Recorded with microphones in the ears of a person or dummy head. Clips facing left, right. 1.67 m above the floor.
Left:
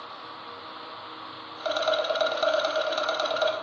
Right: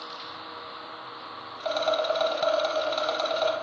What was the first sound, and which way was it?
A rattle, 5° left (ahead or behind).